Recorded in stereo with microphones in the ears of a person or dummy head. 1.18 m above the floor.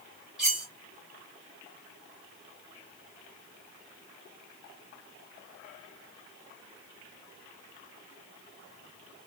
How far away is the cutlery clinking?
About 1.2 m.